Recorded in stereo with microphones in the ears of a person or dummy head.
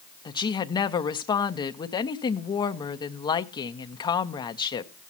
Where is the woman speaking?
25° left (ahead or behind), 0.5 m.